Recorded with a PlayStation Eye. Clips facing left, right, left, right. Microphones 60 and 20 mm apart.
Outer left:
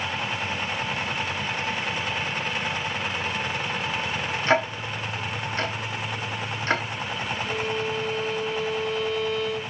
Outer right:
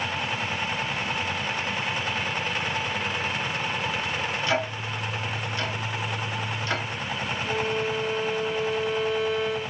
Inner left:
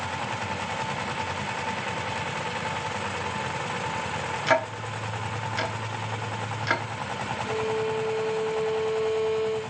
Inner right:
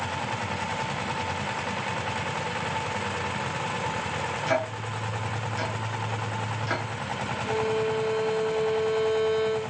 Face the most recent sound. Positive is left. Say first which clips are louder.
# outer right 2 dB, inner right 2 dB
turn(degrees=-20)  # may be behind; listen again after turning